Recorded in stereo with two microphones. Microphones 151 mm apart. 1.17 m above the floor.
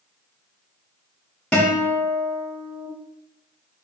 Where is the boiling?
No boiling in this recording.